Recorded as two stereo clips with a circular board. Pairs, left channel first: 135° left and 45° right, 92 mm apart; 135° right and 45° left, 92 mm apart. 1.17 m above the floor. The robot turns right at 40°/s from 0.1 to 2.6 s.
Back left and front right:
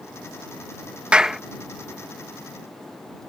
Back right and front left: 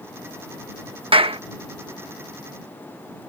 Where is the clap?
30° left; by 1.4 s 45° left.